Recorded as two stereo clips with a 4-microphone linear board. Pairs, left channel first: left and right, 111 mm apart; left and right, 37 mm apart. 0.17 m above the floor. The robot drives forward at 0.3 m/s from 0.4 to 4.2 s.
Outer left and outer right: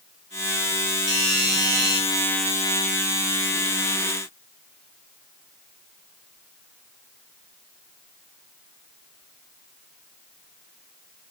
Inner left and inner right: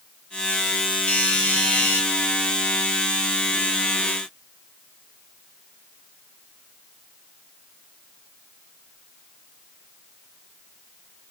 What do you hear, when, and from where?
1.1 s a doorbell: 40° left (ahead or behind), 4 m; by 2.0 s 35° left (ahead or behind), 4 m